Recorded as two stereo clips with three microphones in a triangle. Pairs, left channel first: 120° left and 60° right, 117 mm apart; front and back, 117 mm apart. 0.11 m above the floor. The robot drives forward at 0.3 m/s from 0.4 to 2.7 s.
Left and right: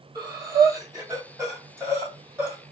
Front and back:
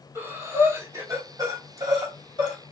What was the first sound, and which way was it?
Breathing, 115° right.